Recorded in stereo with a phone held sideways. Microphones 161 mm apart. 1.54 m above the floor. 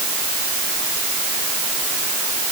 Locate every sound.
Only background noise.